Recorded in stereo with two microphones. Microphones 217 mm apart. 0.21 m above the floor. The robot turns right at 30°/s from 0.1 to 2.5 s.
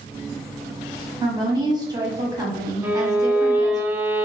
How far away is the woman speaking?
About 1.0 m.